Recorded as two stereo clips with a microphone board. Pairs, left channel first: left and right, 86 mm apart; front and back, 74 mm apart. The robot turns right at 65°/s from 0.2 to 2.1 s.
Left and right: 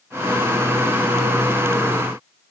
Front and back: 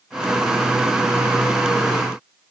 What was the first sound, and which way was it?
Only background noise.